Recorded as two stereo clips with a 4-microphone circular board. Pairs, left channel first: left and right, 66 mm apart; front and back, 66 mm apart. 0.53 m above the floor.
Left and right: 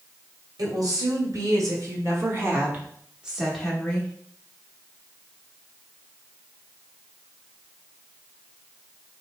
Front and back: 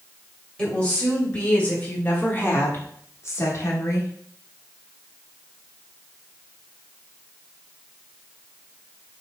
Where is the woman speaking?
75° right, 1.9 m; by 4.1 s 25° left, 1.0 m.